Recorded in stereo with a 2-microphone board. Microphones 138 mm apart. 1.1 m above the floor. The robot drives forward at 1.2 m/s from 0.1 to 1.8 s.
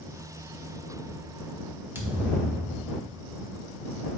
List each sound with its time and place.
1.9 s a thud: 20° right (ahead or behind), 1.2 m